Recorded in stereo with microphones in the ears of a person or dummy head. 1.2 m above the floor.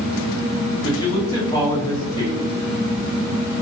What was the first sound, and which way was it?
A man speaking, 20° left (ahead or behind).